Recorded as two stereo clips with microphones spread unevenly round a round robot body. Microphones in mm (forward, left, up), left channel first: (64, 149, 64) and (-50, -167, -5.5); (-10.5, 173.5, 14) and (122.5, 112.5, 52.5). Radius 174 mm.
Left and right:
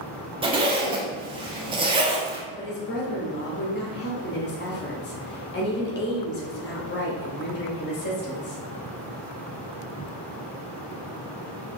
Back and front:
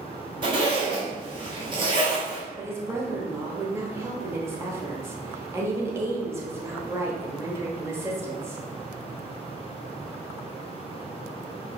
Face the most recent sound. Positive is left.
turn(degrees=55)